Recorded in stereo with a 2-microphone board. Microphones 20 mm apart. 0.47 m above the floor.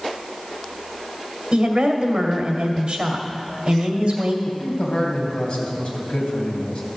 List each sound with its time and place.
1.5 s a woman speaking: 50° right (ahead or behind), 2 m
4.5 s a man speaking: 60° left (ahead or behind), 3 m